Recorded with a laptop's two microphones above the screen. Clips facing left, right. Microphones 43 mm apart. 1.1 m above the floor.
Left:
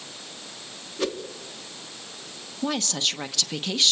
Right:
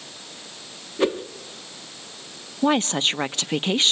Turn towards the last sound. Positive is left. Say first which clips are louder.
# right 7 dB
turn(degrees=-35)  # may be behind; listen again after turning